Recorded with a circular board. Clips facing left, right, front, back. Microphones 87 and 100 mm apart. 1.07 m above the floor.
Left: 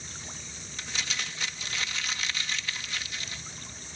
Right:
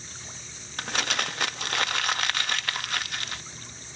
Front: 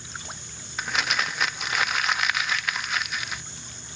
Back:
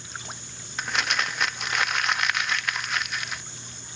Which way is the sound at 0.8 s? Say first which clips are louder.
Right 8 dB, even; 90° right.